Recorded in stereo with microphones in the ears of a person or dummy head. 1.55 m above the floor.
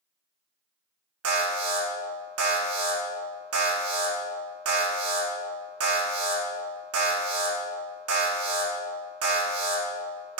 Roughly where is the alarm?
Right.